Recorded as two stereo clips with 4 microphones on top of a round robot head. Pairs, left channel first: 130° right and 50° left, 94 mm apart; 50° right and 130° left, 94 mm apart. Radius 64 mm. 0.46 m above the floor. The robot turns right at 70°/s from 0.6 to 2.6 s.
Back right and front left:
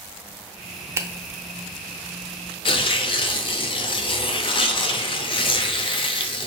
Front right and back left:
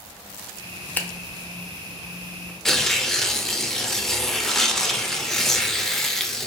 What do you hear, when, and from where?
1.0 s a finger snap: 10° left, 0.7 m; by 1.1 s 15° left, 0.7 m
2.6 s tearing paper: 135° right, 0.6 m